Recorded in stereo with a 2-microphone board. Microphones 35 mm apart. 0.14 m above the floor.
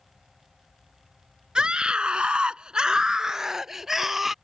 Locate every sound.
1.6 s a scream: 25° right (ahead or behind); by 4.3 s 5° right (ahead or behind)